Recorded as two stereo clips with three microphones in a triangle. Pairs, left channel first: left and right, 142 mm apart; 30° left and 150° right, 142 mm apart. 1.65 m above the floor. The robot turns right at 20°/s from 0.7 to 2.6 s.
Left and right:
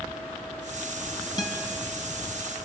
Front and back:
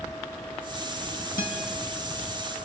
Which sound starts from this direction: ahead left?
A guitar, at 1.4 s.